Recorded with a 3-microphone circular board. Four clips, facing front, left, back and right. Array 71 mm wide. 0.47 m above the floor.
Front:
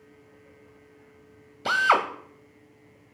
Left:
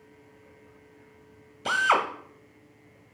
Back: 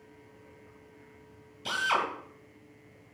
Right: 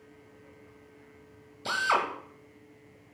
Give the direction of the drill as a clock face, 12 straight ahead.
11 o'clock.